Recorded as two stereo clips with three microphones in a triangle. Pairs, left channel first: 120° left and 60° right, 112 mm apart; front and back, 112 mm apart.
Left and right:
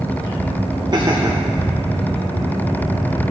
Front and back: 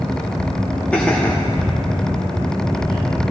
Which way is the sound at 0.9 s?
70° right.